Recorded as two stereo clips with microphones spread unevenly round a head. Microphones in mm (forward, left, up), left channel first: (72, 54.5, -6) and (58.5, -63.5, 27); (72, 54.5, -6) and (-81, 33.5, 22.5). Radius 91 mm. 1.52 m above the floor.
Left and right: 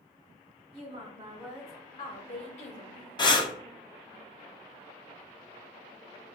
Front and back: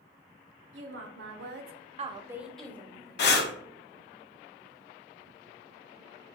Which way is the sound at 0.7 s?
160° right.